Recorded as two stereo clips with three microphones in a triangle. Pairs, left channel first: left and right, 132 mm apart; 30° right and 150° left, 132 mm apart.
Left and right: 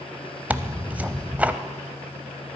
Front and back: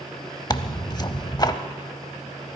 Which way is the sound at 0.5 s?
20° right.